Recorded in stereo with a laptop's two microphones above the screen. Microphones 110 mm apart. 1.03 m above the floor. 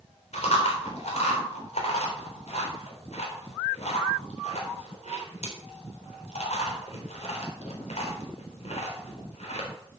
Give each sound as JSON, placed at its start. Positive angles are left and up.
{"t": 0.3, "sound": "chewing", "side_deg": 85, "distance_m": 3.5}